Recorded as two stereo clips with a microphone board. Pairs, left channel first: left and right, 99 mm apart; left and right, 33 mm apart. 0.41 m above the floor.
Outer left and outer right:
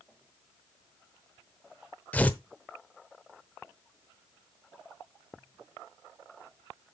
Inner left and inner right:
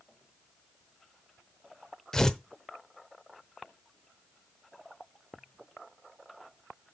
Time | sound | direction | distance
2.1 | tearing paper | 15° left (ahead or behind) | 0.8 m